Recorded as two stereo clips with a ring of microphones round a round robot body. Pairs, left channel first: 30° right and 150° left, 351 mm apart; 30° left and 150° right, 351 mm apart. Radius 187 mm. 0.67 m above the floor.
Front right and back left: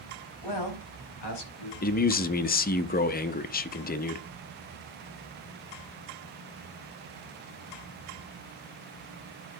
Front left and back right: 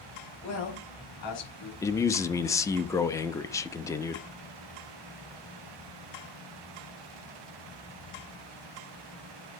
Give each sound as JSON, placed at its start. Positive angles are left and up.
{"t": 0.4, "sound": "a man speaking", "azimuth_deg": -5, "distance_m": 4.5}
{"t": 1.8, "sound": "a man speaking", "azimuth_deg": -40, "distance_m": 0.6}